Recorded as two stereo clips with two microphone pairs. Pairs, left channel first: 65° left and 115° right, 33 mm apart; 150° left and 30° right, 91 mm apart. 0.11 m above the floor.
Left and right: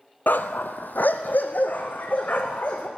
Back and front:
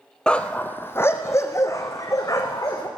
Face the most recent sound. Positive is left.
turn(degrees=100)